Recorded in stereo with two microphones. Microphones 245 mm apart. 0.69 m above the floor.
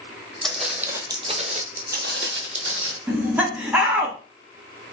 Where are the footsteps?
5° left (ahead or behind), 1.0 m; by 3.0 s 55° right (ahead or behind), 1.2 m.